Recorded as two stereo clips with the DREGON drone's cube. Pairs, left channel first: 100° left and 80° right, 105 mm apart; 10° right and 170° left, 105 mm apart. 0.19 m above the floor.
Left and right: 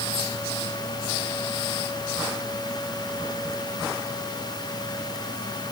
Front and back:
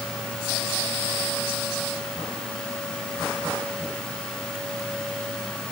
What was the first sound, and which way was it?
Only background noise.